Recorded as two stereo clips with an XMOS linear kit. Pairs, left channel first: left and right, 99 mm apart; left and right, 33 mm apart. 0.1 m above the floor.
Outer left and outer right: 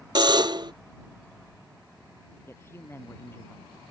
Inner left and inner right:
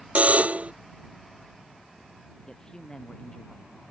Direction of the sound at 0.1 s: 50° right (ahead or behind).